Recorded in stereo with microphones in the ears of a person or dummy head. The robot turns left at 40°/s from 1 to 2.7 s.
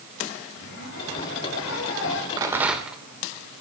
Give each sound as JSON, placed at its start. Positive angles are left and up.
{"t": 0.6, "sound": "a zipper", "azimuth_deg": 115, "distance_m": 5.0}
{"t": 2.4, "sound": "a rattle", "side_deg": -20, "distance_m": 1.5}